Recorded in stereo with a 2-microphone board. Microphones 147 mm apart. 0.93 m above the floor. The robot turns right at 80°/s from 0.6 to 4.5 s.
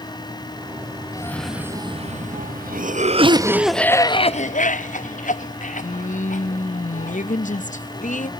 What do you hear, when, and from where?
1.1 s a cough: 155° left, 0.8 m; by 8.3 s 65° left, 0.8 m